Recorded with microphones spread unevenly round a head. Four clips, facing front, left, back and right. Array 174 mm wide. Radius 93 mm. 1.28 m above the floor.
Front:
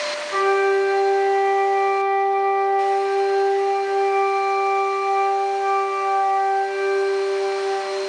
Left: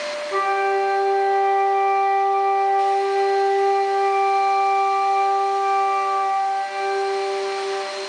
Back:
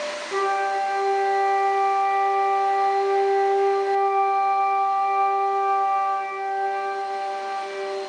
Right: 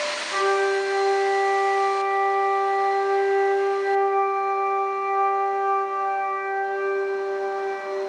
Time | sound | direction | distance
0.3 | a flute | 135° left | 1.9 m